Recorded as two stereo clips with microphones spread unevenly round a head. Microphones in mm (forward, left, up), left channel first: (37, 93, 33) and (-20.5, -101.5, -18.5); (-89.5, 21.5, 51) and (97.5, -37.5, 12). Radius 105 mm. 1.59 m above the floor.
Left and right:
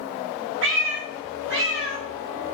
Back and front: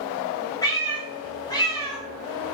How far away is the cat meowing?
About 1.1 m.